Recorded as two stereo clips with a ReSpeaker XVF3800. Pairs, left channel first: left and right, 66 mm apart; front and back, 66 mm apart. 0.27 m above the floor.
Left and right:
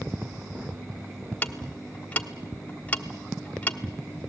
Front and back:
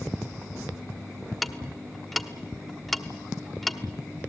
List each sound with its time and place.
1.4 s ticking: 90° left, 0.9 m